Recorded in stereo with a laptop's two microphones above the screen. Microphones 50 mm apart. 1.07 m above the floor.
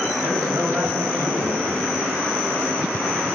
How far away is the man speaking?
About 8 m.